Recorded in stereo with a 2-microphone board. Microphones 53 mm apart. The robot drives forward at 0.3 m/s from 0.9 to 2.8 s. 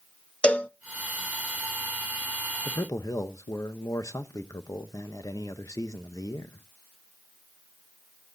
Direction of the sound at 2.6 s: 80° left.